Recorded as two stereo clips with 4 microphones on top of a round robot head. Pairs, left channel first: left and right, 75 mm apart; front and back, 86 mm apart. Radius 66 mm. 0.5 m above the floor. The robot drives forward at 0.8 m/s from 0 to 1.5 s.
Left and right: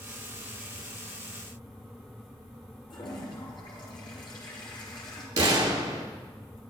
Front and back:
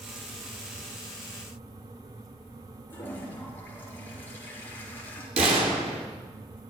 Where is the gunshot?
150° right, 3 m.